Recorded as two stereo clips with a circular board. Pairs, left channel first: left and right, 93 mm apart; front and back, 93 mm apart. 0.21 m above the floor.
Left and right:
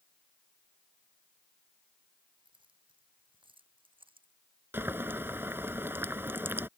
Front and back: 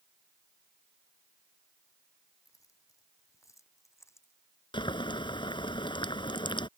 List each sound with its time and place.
2.5 s keys jangling: 55° right; by 4.3 s 60° right
4.7 s boiling: 25° right